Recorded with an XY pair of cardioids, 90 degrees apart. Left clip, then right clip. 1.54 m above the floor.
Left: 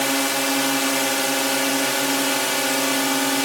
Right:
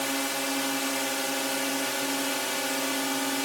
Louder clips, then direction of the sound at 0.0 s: Left 8 dB; 65° left.